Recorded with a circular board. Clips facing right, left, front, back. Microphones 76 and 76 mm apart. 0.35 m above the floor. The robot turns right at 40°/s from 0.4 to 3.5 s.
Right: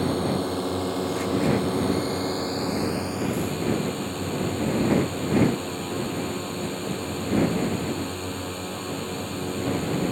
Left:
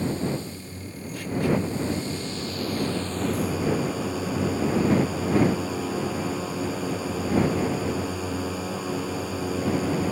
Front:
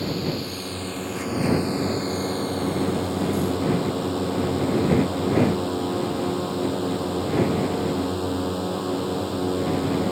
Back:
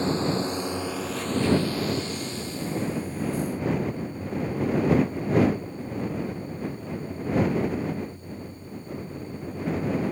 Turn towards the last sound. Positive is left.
turn(degrees=5)